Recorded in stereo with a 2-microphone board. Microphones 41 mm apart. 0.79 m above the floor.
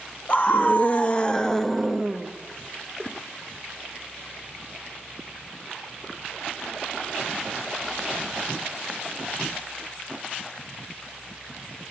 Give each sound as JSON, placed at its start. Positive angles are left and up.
{"t": 0.3, "sound": "a scream", "side_deg": 40, "distance_m": 1.7}
{"t": 3.0, "sound": "a whoosh", "side_deg": 40, "distance_m": 6.5}